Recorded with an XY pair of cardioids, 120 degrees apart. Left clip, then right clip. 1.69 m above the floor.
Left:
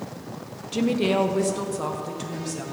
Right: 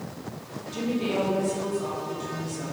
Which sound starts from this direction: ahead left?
A woman speaking, at 0.7 s.